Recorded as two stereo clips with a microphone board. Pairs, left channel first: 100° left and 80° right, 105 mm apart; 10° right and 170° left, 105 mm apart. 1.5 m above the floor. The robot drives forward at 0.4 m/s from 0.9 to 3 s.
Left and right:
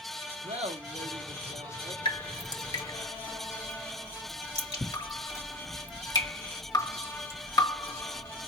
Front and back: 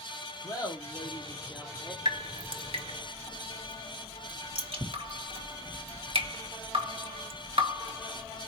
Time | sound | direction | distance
0.4 | laughter | 65° right | 0.9 m
2.0 | dripping | 135° left | 0.8 m